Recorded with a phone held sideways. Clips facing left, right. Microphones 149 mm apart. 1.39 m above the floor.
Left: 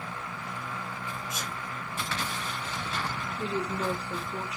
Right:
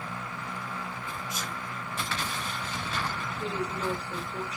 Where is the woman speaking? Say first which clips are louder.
Left 2 dB; 65° left (ahead or behind), 1.3 m.